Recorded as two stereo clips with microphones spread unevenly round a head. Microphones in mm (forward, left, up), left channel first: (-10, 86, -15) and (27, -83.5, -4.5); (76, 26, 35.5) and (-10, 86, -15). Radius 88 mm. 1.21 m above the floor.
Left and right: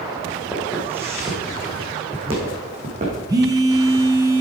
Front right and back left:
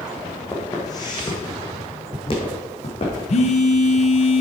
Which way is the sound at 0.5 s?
5° left.